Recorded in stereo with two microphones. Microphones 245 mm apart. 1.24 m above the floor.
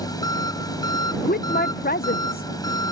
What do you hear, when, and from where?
0.0 s an engine running: 15° left (ahead or behind)
1.2 s a woman speaking: 40° left (ahead or behind)